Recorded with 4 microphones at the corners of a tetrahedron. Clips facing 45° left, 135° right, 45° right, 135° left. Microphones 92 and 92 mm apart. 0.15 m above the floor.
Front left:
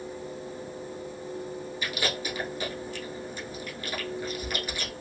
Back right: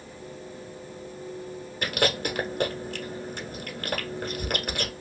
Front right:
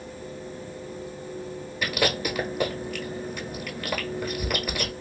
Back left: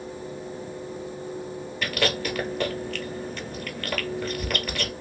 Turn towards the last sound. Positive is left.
turn(degrees=-120)